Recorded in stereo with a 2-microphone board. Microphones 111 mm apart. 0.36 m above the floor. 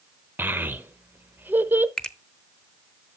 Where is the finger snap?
5° left (ahead or behind), 0.8 m.